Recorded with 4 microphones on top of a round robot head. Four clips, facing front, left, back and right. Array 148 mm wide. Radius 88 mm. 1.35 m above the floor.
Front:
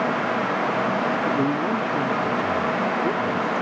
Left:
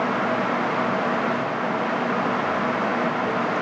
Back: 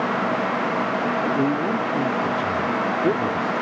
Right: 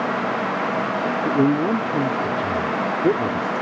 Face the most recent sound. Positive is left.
turn(degrees=-115)